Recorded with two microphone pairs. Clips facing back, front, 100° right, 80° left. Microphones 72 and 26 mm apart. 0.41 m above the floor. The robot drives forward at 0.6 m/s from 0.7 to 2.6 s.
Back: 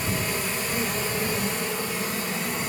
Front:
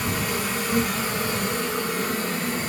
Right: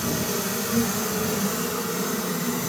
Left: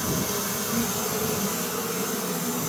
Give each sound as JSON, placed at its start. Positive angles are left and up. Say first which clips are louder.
{"t": 0.0, "sound": "an insect", "louder": "front 2 dB, right 1 dB", "azimuth_deg": -20, "distance_m": 3.5}